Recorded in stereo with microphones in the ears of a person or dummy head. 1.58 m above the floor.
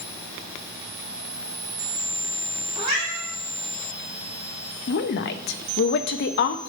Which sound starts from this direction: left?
A woman speaking, at 4.9 s.